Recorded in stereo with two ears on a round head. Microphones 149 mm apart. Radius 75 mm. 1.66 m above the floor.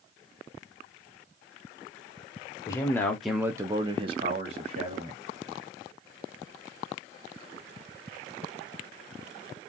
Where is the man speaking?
20° left (ahead or behind), 0.8 m; by 5.2 s 40° right (ahead or behind), 1.3 m.